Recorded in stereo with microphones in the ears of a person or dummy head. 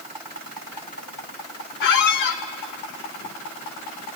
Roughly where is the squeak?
Left.